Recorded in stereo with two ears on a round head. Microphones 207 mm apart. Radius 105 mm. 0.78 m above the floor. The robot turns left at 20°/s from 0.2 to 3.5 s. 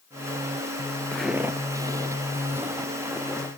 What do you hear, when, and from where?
1.1 s footsteps: 5° left (ahead or behind), 0.7 m